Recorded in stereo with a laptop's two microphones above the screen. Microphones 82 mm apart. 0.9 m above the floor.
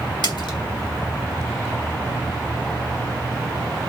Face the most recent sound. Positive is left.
turn(degrees=70)  # may be behind; listen again after turning